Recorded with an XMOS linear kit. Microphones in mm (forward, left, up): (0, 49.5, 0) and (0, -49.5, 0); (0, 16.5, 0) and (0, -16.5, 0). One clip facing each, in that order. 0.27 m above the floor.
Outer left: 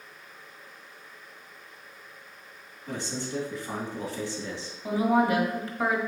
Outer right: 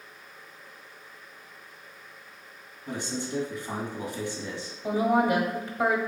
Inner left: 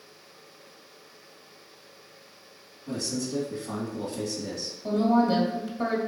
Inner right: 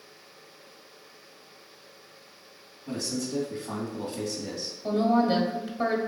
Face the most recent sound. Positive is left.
turn(degrees=-20)  # may be behind; listen again after turning